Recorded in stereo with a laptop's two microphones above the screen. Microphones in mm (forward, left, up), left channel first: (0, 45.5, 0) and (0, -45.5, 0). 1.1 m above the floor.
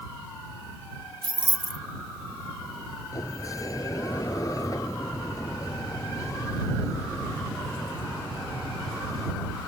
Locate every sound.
1.2 s keys jangling: 60° right (ahead or behind)
3.1 s a sliding door: 35° left (ahead or behind)